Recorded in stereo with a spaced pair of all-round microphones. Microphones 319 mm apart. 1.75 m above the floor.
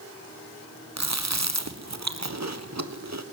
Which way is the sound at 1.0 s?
55° right (ahead or behind).